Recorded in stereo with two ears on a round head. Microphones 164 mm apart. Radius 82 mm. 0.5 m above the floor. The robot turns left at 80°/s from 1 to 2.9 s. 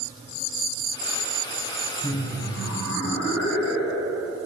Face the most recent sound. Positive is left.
turn(degrees=75)